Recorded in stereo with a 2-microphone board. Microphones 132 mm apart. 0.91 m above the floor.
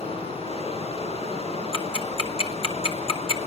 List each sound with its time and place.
0.0 s running water: 50° left (ahead or behind), 7 m
1.7 s ticking: 45° left (ahead or behind), 2.5 m